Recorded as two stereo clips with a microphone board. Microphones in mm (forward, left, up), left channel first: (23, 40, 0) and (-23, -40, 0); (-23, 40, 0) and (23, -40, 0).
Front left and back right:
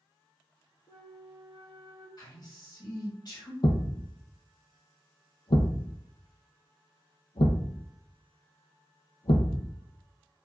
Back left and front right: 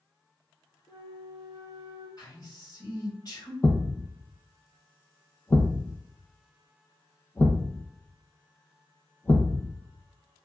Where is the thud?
60° left, 0.7 m.